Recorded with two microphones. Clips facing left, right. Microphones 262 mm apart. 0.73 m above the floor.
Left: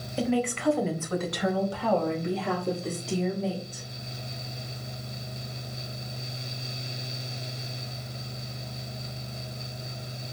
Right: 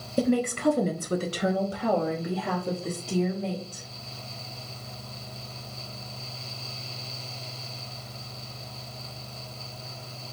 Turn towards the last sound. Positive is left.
turn(degrees=5)  # may be behind; listen again after turning